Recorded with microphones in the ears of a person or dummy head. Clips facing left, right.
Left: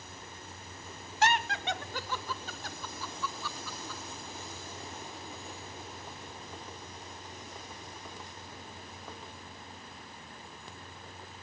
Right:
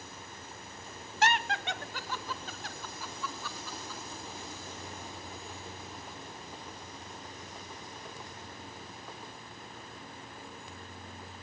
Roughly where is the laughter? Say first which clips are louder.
Left 1 dB; left.